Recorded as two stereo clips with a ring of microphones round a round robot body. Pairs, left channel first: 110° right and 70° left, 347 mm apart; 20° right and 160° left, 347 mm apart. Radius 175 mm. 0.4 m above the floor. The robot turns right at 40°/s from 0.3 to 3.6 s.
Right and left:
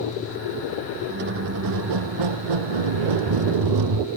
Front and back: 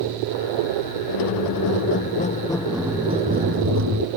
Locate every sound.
1.1 s a squeak: straight ahead; by 4.1 s 100° left